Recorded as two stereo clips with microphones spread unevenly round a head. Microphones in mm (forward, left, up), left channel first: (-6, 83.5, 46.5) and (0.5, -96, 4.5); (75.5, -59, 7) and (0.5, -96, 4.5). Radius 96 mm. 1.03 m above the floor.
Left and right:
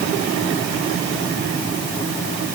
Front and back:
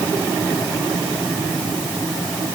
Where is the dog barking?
I don't hear a dog barking.